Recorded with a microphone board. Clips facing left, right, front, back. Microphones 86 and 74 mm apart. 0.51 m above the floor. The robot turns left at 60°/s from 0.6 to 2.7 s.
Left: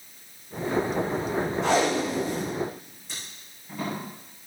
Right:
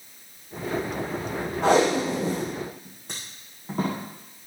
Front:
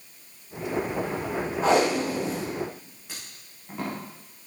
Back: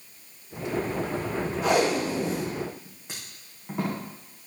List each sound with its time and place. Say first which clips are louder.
1.6 s tape being pulled: right 5 dB, front 2 dB; 50° right, 7.5 m; by 4.0 s 115° right, 7.5 m